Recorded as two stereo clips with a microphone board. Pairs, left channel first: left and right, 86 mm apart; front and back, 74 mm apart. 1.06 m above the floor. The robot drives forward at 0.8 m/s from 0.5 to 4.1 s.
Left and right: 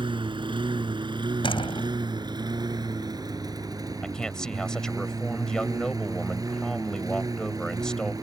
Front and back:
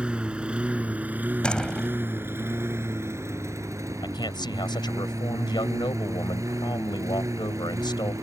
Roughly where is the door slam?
Left.